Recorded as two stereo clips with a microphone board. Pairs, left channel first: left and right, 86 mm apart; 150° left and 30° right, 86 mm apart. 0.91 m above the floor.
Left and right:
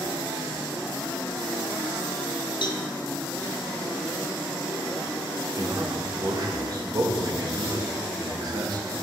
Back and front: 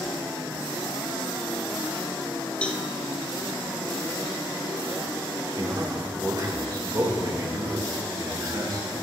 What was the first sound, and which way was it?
A cowbell, 75° left.